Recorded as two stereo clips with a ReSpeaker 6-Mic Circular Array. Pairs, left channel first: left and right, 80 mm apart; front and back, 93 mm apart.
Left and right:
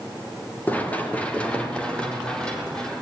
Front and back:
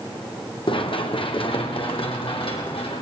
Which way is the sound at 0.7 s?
20° left.